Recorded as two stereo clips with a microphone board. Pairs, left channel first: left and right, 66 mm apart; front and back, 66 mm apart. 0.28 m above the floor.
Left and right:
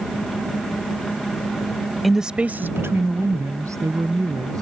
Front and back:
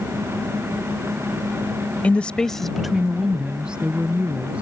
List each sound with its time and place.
2.0 s a woman speaking: 5° right; by 4.6 s 110° right